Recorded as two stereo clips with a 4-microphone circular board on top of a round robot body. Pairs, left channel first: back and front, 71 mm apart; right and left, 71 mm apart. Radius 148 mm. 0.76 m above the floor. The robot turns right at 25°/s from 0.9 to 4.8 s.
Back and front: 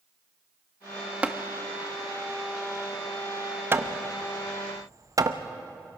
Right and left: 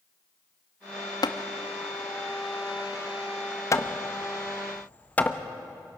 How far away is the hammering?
About 1.1 m.